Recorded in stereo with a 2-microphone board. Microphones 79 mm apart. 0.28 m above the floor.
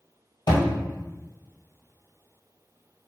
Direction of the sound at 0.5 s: 75° left (ahead or behind).